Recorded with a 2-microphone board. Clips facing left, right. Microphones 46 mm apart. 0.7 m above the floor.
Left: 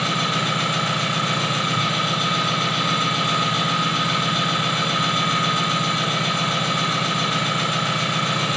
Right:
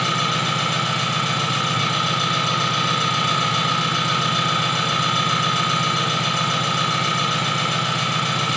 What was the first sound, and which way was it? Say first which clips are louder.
An engine running: right 1 dB; 80° right.